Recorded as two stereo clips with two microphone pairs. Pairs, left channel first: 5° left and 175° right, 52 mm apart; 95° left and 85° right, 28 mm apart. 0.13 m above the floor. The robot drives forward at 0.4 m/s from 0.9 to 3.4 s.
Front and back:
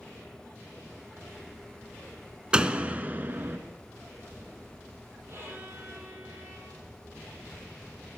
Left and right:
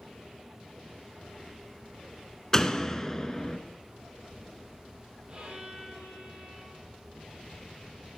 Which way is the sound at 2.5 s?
135° left.